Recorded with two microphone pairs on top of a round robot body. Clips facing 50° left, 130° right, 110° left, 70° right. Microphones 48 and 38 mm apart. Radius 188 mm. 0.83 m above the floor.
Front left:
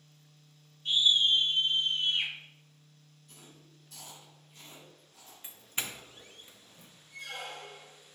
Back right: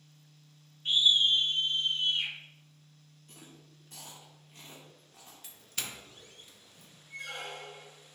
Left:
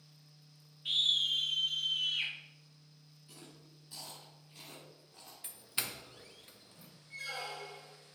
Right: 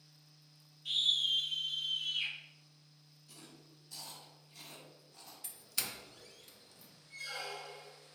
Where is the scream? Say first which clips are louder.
Even, left 1 dB; 175° left, 0.7 m; by 2.3 s 85° left, 1.0 m.